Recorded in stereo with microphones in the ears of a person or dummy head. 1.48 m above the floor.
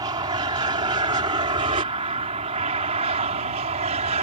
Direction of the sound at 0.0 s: 20° right (ahead or behind).